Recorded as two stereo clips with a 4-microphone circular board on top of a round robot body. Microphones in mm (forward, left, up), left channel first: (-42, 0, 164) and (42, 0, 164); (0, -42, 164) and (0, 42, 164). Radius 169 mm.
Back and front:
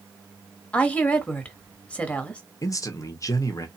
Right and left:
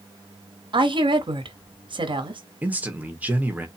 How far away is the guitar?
No guitar in this recording.